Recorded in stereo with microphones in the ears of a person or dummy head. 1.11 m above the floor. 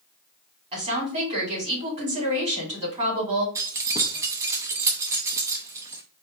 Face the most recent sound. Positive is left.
turn(degrees=-10)  # may be behind; listen again after turning